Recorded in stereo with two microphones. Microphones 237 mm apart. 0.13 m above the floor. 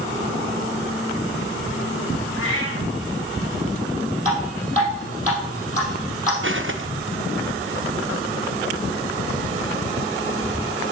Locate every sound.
2.4 s a cat meowing: 55° left (ahead or behind), 3 m
4.2 s dripping: 35° left (ahead or behind), 4 m
6.4 s footsteps: 55° right (ahead or behind), 1.0 m